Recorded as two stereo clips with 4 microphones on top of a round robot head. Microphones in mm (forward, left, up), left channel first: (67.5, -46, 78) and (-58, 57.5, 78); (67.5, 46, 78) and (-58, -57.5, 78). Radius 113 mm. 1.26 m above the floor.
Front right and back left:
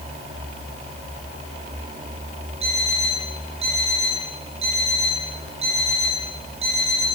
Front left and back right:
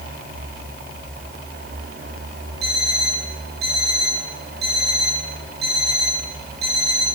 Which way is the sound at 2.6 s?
165° right.